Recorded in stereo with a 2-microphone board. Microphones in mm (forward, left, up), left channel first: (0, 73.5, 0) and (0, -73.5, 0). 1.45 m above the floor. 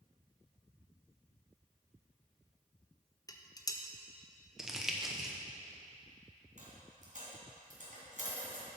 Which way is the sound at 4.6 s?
5° right (ahead or behind).